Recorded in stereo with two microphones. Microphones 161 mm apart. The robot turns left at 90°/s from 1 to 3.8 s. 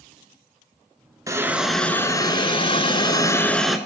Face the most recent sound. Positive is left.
turn(degrees=-10)